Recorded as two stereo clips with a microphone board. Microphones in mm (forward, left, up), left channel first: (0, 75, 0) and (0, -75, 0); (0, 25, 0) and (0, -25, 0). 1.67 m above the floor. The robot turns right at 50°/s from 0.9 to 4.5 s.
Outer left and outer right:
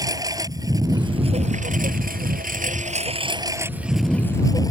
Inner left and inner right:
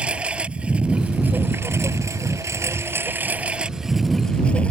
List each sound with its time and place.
0.0 s a lawn mower: 155° right; by 4.7 s 25° left